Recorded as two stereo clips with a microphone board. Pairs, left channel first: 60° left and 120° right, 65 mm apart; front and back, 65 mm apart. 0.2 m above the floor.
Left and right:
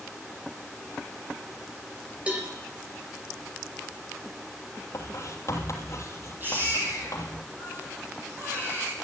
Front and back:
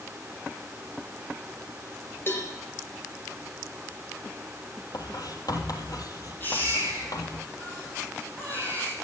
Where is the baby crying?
60° right, 5.5 m.